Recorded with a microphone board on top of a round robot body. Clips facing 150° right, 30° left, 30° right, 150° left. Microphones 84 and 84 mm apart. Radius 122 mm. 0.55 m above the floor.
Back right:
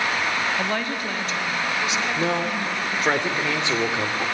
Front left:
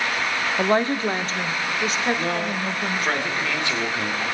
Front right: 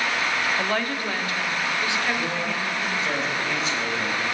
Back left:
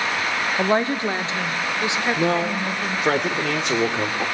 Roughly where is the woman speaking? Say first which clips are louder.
Front left 5 dB, back left 5 dB; left.